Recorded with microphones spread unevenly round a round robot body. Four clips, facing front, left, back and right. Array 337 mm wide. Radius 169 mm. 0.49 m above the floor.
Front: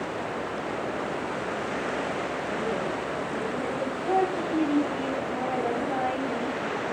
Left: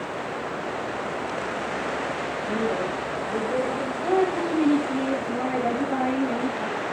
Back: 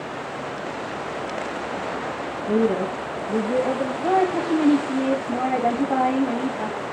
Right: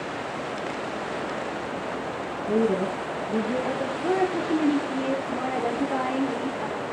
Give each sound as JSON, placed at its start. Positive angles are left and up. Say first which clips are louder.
{"t": 2.5, "sound": "a woman speaking", "louder": "right 4 dB, back 12 dB", "azimuth_deg": -175, "distance_m": 4.5}
{"t": 4.0, "sound": "a woman speaking", "louder": "left 2 dB, back 5 dB", "azimuth_deg": 175, "distance_m": 3.5}